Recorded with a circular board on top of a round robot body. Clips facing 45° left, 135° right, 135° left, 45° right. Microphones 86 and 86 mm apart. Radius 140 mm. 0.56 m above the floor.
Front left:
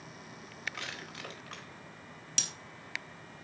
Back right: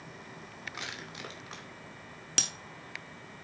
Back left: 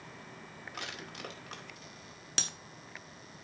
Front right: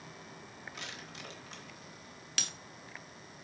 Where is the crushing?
155° left, 2.5 m.